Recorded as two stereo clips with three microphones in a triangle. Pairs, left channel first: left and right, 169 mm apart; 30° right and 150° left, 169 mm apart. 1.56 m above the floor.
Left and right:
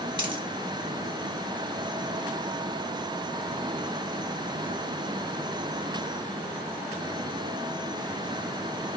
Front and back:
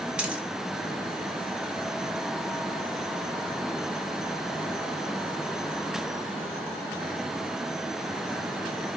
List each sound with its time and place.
0.2 s a dropped coin: 130° right, 1.2 m